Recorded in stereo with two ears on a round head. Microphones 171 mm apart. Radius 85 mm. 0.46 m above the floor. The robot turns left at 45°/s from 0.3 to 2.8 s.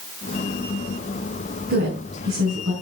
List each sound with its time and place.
1.7 s a woman speaking: 40° right (ahead or behind), 4 m; by 2.7 s 80° right, 4 m